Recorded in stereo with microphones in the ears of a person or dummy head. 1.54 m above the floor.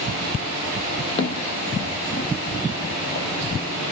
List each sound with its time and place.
1.2 s footsteps: 30° left (ahead or behind), 3 m; by 3.3 s 50° left (ahead or behind), 3.5 m